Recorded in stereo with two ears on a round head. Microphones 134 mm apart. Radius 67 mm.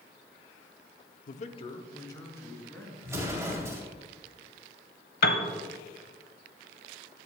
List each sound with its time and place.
1.3 s a man speaking: 60° left (ahead or behind), 0.6 m; by 2.9 s 15° left (ahead or behind), 2.5 m
3.0 s an explosion: 20° right (ahead or behind), 1.9 m
5.2 s a piano: 65° left (ahead or behind), 1.1 m